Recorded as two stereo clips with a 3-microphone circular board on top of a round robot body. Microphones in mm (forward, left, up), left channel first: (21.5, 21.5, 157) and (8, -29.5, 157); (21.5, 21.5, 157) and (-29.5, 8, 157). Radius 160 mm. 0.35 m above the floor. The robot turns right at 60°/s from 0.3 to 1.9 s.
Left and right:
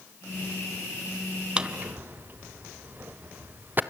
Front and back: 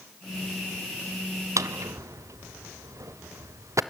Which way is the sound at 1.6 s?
175° right.